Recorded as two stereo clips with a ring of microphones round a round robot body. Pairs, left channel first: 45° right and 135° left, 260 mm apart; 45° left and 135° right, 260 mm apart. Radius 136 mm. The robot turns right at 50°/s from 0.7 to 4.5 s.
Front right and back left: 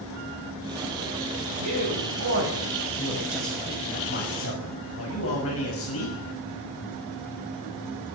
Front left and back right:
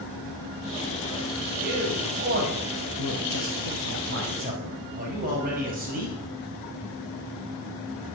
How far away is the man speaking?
About 6 m.